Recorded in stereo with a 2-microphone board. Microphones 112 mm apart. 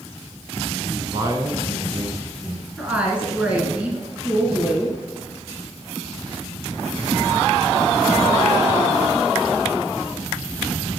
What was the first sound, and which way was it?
A man speaking, 25° right (ahead or behind).